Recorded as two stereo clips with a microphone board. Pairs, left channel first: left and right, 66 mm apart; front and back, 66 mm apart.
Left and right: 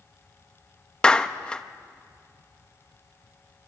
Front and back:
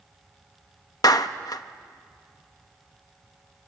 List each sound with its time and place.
1.0 s a clap: 15° left, 0.8 m